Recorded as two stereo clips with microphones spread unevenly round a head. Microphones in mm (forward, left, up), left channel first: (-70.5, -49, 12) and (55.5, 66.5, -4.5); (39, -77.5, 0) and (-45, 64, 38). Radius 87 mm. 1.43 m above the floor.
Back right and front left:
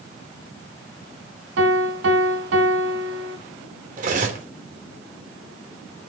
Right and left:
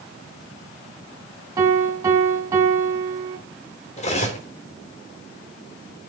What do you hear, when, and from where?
1.6 s a piano: 55° left, 3.5 m
4.0 s cutlery clinking: 5° right, 3 m